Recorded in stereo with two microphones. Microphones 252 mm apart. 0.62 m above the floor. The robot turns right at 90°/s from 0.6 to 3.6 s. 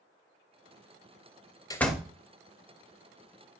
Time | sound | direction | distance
1.7 | a door slam | 165° left | 0.7 m